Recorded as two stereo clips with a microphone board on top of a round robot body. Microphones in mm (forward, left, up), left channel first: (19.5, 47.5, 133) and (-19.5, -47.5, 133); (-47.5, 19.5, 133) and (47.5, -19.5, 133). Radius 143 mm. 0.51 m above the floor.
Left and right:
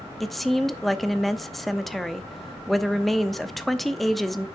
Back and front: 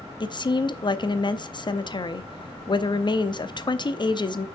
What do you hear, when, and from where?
0.2 s a woman speaking: 155° left, 0.9 m